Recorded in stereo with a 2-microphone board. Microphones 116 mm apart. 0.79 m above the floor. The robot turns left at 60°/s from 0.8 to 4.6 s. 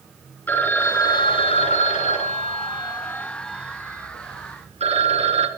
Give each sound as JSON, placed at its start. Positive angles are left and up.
{"t": 0.5, "sound": "a phone ringing", "azimuth_deg": 160, "distance_m": 1.3}